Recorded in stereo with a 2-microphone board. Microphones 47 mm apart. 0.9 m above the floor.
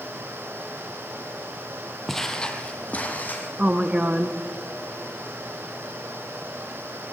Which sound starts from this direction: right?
A woman speaking, at 3.6 s.